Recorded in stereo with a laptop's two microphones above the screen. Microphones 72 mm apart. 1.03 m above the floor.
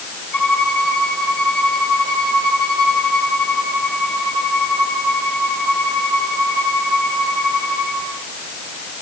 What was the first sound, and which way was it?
A violin, 20° left (ahead or behind).